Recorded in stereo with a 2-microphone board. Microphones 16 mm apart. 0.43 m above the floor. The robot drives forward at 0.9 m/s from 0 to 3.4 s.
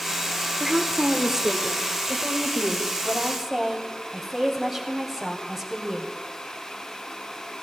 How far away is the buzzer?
No buzzer in this recording.